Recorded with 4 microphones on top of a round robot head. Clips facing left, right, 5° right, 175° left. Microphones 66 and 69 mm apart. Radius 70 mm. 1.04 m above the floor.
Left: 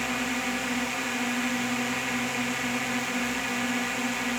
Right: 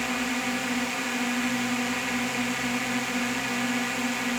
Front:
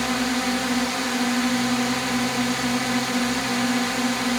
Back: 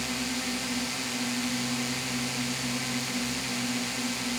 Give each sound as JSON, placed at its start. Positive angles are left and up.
{"t": 0.0, "sound": "a drone", "azimuth_deg": 0}